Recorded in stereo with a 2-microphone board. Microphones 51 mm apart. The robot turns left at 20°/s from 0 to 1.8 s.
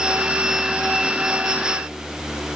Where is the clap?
I don't hear a clap.